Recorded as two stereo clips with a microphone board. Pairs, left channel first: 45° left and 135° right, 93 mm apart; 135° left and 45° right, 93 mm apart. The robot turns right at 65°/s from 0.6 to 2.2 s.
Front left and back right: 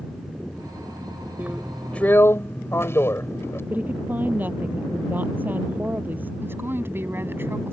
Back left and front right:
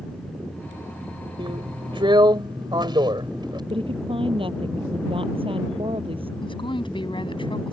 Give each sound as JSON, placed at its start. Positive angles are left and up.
{"t": 1.4, "sound": "a drill", "azimuth_deg": -70}
{"t": 3.7, "sound": "a woman speaking", "azimuth_deg": -65}
{"t": 6.4, "sound": "a woman speaking", "azimuth_deg": 160}